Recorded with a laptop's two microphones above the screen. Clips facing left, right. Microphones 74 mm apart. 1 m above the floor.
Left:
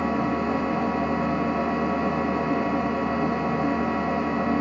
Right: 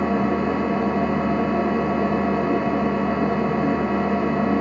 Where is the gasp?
I don't hear a gasp.